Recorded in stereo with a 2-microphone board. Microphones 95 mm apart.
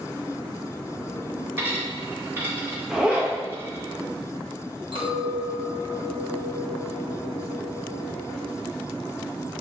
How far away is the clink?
About 1.1 m.